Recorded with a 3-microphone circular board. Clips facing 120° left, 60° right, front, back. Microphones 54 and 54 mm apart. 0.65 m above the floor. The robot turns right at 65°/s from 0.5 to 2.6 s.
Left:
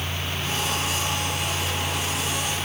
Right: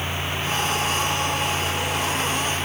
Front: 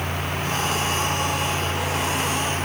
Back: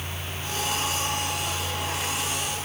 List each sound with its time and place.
Only background noise.